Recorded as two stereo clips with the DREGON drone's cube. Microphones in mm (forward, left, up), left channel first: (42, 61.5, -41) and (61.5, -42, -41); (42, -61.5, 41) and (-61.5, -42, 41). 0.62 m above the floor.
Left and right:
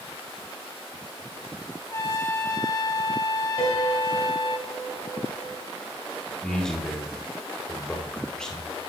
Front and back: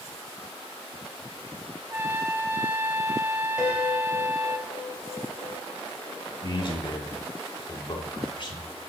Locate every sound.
1.9 s a trumpet: 110° left, 0.7 m
3.6 s a piano: 85° left, 2.5 m
6.4 s a man speaking: 20° left, 1.6 m